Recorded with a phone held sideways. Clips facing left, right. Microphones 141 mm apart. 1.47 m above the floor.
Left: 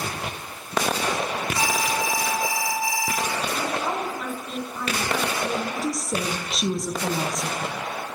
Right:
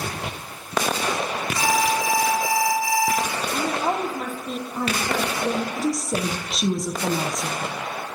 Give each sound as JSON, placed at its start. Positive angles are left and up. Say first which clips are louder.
{"t": 1.6, "sound": "an alarm", "louder": "right 5 dB", "side_deg": 20, "distance_m": 2.5}
{"t": 3.5, "sound": "a woman speaking", "louder": "right 3 dB", "side_deg": -40, "distance_m": 1.0}
{"t": 5.8, "sound": "a woman speaking", "louder": "right 3 dB", "side_deg": 0, "distance_m": 0.6}